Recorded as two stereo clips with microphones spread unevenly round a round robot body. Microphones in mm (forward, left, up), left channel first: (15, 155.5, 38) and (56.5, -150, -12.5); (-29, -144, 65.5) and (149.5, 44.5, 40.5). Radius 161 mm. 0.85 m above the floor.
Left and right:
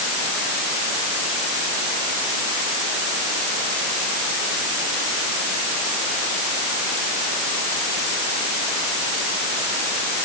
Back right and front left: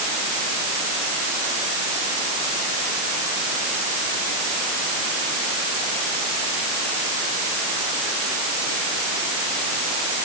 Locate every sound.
Only background noise.